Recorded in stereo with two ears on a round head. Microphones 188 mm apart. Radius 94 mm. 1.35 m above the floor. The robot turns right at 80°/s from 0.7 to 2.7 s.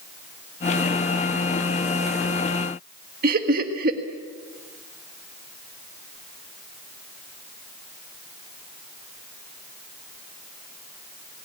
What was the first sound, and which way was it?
Laughter, 45° right (ahead or behind).